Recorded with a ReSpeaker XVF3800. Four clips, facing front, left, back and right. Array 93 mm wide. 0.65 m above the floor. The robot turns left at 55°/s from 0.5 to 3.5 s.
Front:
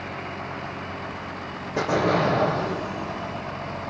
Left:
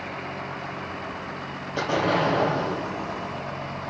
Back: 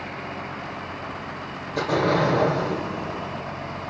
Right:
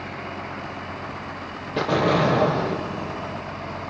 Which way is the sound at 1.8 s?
65° right.